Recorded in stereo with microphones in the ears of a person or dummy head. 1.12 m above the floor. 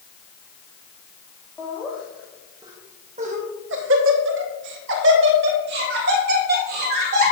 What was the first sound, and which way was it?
Laughter, 5° right (ahead or behind).